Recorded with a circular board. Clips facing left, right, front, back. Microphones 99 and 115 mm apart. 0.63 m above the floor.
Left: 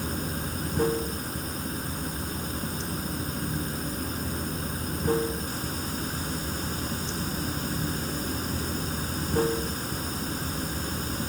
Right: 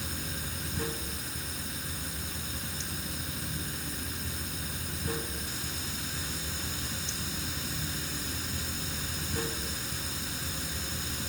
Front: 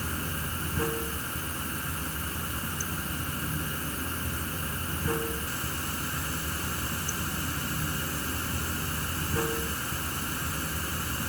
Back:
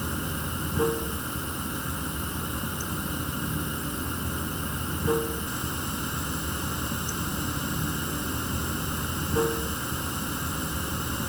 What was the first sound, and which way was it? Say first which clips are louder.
Running water: left 8 dB, back 3 dB; 120° left.